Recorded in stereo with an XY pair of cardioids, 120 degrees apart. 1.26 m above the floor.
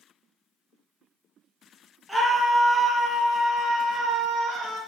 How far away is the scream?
About 1.3 m.